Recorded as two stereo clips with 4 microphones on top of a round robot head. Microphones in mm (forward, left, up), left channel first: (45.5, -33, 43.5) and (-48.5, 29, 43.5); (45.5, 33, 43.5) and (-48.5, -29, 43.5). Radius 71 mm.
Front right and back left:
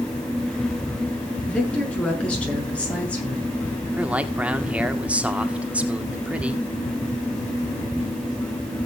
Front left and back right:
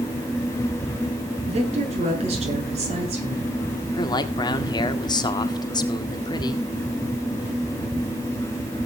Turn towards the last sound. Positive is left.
turn(degrees=70)